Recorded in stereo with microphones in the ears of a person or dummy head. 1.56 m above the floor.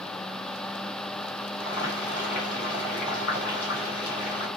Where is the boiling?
50° left (ahead or behind), 2.5 m.